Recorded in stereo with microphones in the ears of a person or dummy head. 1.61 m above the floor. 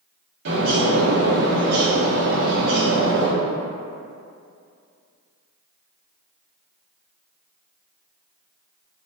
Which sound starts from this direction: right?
A bird, at 0.5 s.